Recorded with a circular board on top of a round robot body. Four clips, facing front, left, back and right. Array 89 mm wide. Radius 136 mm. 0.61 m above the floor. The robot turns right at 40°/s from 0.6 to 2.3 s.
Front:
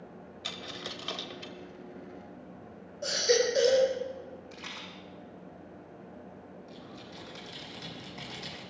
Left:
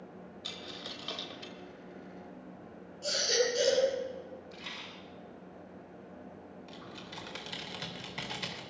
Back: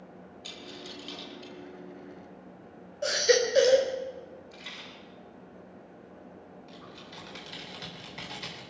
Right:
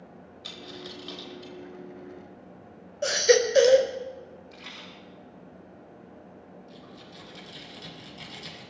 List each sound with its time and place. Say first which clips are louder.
0.4 s a dropped coin: right 5 dB, front 3 dB; 5° right, 1.2 m; by 1.5 s 30° left, 1.2 m
3.0 s a baby crying: right 10 dB, back 2 dB; 105° right, 1.9 m
4.5 s a rattle: right 1 dB, front 2 dB; 5° right, 7 m
6.7 s typing on a keyboard: even, front 1 dB; 105° left, 3.5 m